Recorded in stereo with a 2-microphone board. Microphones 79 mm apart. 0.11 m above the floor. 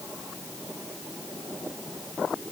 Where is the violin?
I don't hear a violin.